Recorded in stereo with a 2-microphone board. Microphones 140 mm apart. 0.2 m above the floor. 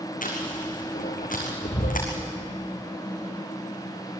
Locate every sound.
0.2 s chewing: 75° left (ahead or behind), 4.5 m